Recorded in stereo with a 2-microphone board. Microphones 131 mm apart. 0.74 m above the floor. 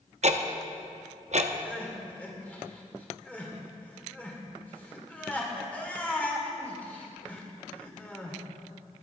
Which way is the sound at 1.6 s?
10° left (ahead or behind).